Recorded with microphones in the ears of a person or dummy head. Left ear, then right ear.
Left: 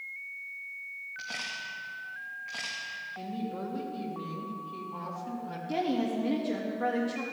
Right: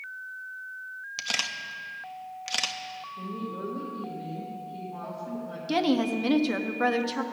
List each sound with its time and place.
1.2 s a camera shutter: 75° right (ahead or behind), 0.8 m
3.2 s a woman speaking: 65° left (ahead or behind), 1.7 m
5.7 s a woman speaking: 50° right (ahead or behind), 0.9 m